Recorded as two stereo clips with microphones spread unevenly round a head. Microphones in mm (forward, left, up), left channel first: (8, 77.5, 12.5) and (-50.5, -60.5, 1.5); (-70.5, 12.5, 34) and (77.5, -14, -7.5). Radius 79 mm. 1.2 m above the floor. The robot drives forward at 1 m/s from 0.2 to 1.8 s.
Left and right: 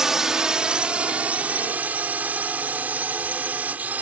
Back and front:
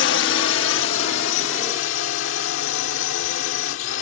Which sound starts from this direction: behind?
A drone, at 0.0 s.